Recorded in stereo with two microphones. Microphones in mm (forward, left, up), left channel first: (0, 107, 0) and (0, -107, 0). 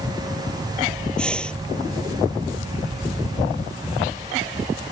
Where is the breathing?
5° left (ahead or behind).